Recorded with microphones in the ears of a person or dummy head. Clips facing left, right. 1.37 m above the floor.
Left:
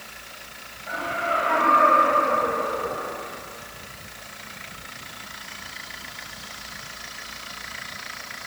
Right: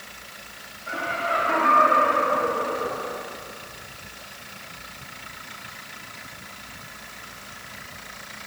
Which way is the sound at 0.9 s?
30° right (ahead or behind).